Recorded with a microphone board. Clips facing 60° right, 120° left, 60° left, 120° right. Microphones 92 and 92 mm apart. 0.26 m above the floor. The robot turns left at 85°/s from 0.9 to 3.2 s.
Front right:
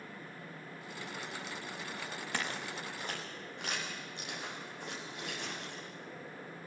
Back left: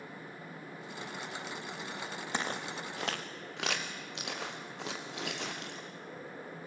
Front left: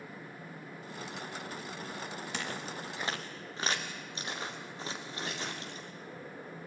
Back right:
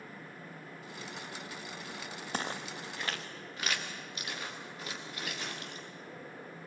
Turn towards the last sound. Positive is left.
turn(degrees=120)